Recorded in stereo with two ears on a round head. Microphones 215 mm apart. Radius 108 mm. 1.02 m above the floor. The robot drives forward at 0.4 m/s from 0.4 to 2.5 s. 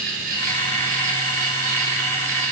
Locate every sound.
0.0 s an insect: 40° right (ahead or behind), 3 m; by 2.5 s 35° right (ahead or behind), 4 m